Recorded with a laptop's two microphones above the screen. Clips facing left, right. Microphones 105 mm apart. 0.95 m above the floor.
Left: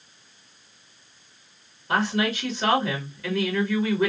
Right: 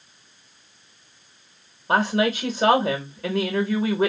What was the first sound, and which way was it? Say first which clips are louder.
A woman speaking: right 3 dB; 45° right (ahead or behind).